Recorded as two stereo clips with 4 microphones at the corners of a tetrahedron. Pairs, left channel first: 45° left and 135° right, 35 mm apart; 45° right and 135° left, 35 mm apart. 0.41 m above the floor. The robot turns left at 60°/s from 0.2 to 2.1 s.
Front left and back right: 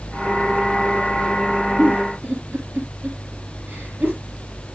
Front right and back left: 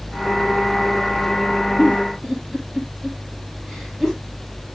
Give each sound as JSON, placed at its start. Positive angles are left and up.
{"t": 1.8, "sound": "a giggle", "azimuth_deg": -105, "distance_m": 3.5}